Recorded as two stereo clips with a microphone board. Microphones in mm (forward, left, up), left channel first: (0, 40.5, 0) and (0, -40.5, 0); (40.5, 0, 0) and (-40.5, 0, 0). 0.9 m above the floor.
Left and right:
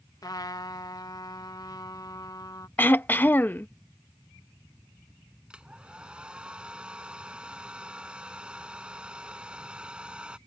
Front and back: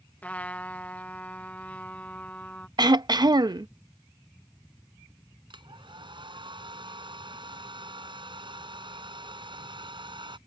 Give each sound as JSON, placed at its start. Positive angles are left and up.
{"t": 0.2, "sound": "a trumpet", "azimuth_deg": 70}
{"t": 2.8, "sound": "throat clearing", "azimuth_deg": 155}
{"t": 5.5, "sound": "a hair dryer", "azimuth_deg": -170}